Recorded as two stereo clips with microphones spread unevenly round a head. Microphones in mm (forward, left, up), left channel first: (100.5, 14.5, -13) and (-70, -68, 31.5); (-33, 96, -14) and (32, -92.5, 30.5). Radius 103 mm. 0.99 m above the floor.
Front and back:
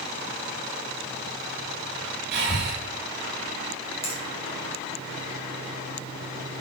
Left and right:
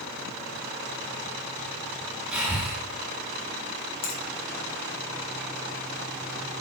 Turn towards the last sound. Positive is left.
turn(degrees=90)